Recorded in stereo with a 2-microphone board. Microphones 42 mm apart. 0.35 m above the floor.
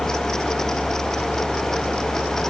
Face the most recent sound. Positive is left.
No sound to turn to.